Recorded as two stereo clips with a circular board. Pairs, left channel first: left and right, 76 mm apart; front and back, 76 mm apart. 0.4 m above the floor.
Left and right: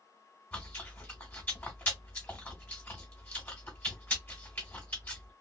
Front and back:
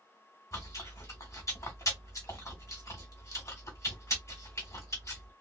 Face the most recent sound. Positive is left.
turn(degrees=25)